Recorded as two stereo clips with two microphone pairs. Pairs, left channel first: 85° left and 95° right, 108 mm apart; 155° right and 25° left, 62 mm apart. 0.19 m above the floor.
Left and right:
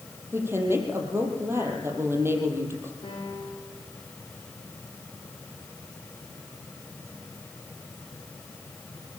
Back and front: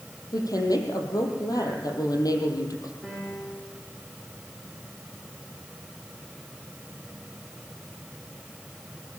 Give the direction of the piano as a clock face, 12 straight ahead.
8 o'clock.